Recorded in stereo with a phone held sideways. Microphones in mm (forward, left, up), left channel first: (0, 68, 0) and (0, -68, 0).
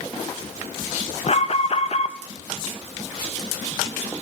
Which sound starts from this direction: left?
An alarm, at 1.3 s.